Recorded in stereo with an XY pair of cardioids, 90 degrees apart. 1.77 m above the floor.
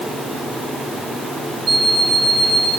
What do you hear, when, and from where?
1.7 s an alarm clock: 60° right, 3.5 m